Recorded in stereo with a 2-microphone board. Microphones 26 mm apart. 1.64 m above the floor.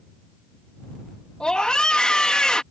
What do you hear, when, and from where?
1.4 s a scream: 30° left (ahead or behind)